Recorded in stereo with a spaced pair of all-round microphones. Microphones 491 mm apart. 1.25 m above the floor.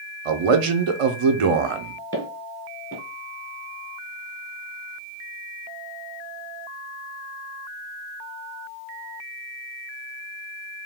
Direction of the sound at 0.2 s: 85° right.